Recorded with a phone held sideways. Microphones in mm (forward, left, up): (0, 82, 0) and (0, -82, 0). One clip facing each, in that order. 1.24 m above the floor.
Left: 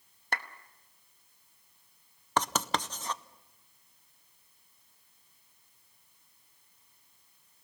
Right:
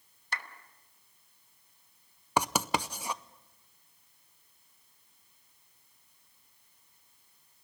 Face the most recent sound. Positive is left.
turn(degrees=-10)  # may be behind; listen again after turning